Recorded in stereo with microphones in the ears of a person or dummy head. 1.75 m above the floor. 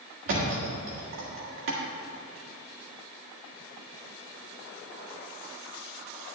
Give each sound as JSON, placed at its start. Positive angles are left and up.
{"t": 0.3, "sound": "a thud", "side_deg": -50, "distance_m": 1.6}